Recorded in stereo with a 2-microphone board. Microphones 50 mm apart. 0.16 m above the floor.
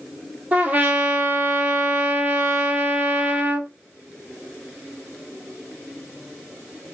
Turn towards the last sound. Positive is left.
turn(degrees=-30)  # may be behind; listen again after turning